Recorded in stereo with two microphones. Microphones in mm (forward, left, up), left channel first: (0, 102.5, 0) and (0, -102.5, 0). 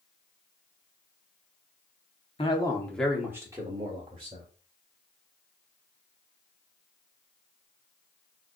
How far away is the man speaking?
About 0.8 m.